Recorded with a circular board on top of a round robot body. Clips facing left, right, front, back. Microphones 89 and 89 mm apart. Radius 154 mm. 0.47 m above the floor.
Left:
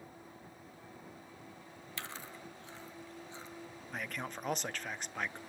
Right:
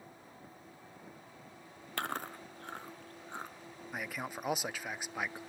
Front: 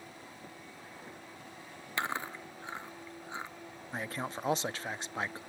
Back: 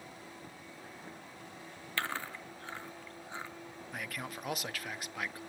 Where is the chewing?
70° right, 1.2 m.